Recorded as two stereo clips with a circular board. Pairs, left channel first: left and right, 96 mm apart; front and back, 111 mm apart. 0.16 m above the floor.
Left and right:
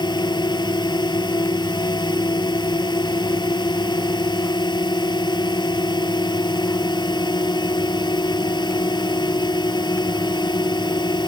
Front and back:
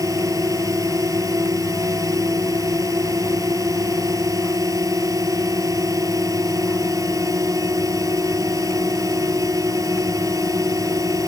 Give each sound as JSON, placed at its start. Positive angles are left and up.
{"t": 0.0, "sound": "a drone", "azimuth_deg": 125}